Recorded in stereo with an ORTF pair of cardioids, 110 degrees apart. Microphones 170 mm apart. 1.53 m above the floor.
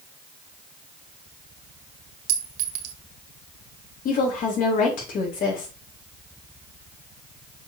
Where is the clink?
60° right, 1.6 m.